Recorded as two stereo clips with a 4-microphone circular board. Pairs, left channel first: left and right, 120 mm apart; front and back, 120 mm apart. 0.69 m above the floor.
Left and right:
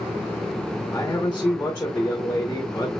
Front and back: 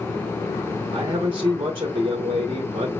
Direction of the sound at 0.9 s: 160° left.